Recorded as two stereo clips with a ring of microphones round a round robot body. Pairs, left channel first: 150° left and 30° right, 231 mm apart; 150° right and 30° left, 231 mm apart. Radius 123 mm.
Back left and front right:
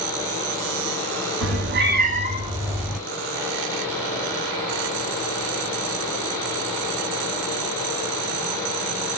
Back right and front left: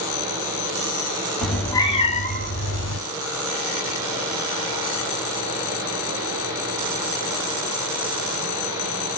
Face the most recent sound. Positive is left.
turn(degrees=-120)